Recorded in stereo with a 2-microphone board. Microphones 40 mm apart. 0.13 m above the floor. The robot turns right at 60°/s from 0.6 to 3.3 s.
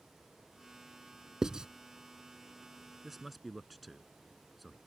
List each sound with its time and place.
1.4 s writing: 15° right (ahead or behind); by 1.7 s 20° right (ahead or behind)
3.0 s a man speaking: 10° right (ahead or behind); by 4.8 s centre (ahead or behind)